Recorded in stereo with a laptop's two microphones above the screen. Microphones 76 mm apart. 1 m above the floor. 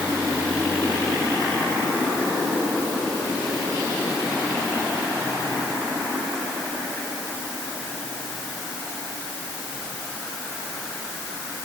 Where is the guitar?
No guitar in this recording.